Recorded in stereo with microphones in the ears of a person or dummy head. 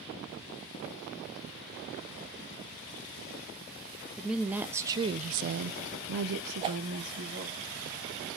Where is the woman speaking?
Centre (ahead or behind), 0.9 m; by 7.6 s 45° right (ahead or behind), 1.2 m.